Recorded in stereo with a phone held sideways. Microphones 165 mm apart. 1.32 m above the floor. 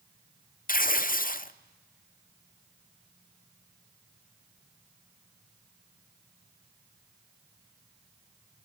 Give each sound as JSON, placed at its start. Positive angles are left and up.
{"t": 0.7, "sound": "tearing paper", "side_deg": 60, "distance_m": 0.6}